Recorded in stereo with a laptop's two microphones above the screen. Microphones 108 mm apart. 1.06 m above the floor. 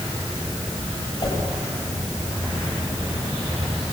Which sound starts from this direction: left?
A whoosh, at 1.2 s.